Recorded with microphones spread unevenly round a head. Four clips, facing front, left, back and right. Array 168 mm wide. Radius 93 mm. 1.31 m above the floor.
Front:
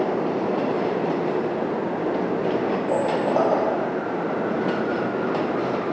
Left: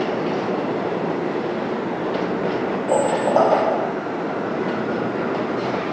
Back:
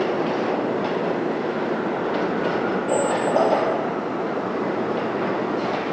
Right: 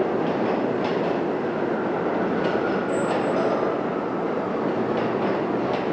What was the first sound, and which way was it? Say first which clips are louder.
A squeak: left 5 dB, back 2 dB; 95° left.